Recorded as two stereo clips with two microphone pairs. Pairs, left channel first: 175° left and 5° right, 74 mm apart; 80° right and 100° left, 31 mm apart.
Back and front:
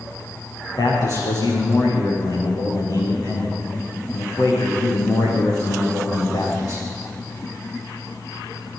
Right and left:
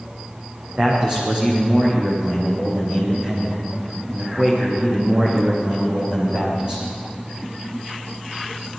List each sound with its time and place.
0.7 s a man speaking: 155° left, 9 m